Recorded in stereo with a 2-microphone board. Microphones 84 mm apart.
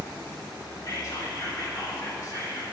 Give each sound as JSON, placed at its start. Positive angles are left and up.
{"t": 0.8, "sound": "whispering", "side_deg": 40, "distance_m": 1.3}